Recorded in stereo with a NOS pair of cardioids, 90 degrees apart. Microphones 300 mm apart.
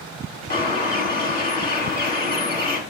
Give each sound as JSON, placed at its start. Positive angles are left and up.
{"t": 0.5, "sound": "a bird", "azimuth_deg": 30, "distance_m": 2.5}